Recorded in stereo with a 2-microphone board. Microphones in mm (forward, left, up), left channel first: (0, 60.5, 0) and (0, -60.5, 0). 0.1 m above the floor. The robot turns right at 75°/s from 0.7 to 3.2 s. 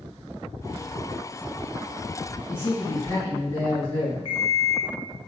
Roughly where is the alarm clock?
Left.